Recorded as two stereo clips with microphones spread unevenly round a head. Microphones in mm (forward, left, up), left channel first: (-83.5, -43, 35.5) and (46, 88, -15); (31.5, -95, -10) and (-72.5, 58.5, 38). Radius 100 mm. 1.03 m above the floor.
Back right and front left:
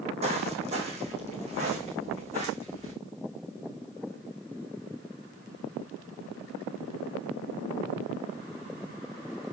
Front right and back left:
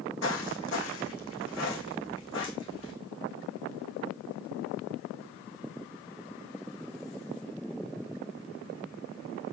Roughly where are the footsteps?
Ahead.